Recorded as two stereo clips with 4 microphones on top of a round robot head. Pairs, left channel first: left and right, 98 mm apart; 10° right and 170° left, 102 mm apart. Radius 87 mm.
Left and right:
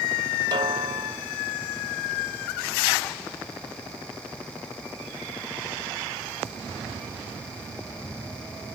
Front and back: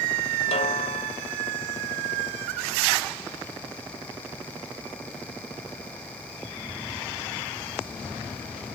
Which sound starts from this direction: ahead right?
A snare drum, at 0.5 s.